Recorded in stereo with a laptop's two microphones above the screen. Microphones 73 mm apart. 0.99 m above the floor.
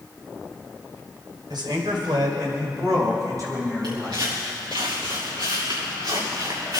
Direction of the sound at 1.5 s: 85° right.